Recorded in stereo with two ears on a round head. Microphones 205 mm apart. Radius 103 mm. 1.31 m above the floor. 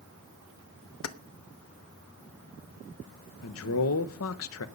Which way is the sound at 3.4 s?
65° left (ahead or behind).